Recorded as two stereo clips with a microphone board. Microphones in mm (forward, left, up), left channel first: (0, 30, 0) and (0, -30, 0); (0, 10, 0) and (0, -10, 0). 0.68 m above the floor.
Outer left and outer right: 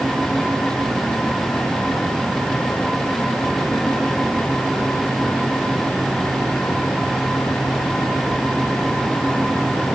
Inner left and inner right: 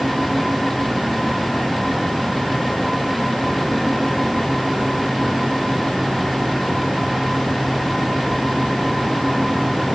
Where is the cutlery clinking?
I don't hear cutlery clinking.